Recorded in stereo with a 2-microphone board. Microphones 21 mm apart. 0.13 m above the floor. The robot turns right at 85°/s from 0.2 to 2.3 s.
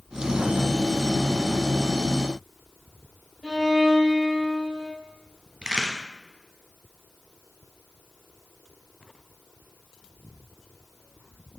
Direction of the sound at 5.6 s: 50° right (ahead or behind).